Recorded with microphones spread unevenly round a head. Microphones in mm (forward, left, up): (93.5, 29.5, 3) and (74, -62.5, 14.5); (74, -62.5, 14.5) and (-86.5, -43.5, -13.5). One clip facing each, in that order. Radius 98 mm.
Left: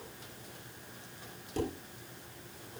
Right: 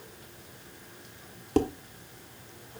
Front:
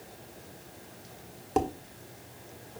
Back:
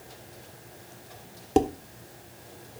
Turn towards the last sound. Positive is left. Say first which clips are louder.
# right 9 dB, back 6 dB
turn(degrees=-125)